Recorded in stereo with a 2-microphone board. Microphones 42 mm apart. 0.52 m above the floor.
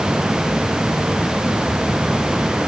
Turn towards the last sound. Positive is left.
No sound to turn to.